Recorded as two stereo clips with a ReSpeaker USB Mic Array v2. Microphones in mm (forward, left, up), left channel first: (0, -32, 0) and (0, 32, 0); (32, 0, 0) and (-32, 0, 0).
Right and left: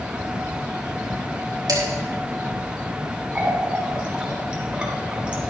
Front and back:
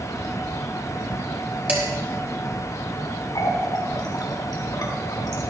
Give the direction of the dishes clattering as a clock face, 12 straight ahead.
8 o'clock.